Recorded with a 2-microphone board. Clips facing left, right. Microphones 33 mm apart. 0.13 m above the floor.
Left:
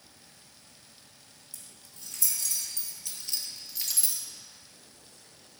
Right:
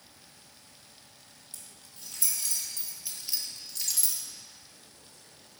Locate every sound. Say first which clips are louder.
1.5 s keys jangling: even; 35° right (ahead or behind), 3 m; by 4.2 s 25° left (ahead or behind), 1.4 m